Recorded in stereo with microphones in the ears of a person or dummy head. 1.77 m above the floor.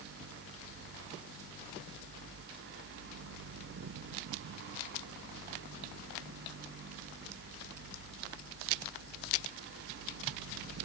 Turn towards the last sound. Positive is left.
No sound to turn to.